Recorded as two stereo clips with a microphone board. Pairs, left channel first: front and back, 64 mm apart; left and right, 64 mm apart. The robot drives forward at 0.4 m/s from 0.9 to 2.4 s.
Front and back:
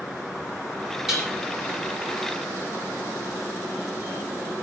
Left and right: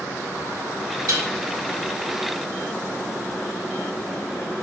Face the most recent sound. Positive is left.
turn(degrees=-105)